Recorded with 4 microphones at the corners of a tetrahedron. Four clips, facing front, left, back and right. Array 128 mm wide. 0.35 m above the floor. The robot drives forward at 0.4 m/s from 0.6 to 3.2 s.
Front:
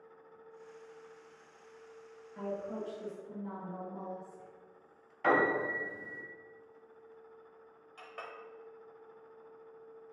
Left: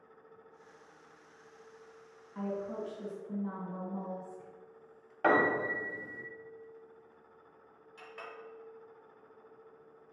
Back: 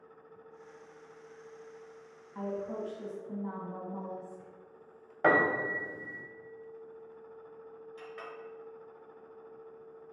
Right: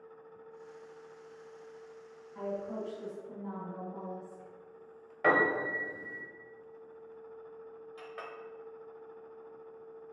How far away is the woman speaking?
About 1.8 m.